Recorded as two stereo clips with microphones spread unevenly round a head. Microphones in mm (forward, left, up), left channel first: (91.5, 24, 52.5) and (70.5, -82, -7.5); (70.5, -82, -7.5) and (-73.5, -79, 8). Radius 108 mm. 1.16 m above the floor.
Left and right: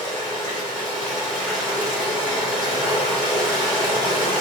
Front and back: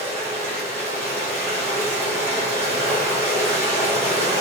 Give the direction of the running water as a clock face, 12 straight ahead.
8 o'clock.